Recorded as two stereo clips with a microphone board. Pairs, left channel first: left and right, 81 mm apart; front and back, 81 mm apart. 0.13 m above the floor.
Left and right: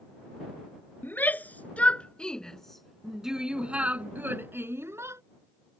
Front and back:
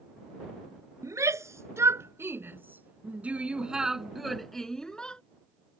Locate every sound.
1.0 s a shout: 145° left; by 5.2 s 75° right